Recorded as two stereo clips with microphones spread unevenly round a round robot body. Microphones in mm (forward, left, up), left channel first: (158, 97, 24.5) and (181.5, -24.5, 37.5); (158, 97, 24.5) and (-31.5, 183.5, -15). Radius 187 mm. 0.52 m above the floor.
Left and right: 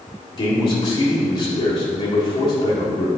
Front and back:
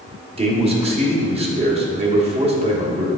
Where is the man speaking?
130° left, 1.2 m.